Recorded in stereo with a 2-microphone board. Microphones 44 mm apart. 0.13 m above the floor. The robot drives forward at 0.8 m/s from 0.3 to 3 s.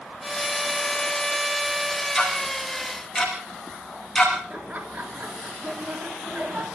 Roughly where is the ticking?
Centre.